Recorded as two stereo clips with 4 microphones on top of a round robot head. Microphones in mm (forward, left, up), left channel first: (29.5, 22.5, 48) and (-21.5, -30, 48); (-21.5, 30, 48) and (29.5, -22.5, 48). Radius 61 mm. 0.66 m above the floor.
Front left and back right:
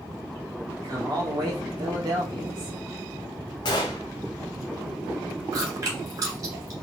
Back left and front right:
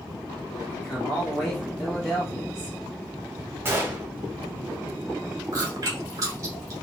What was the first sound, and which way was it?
A man speaking, 140° right.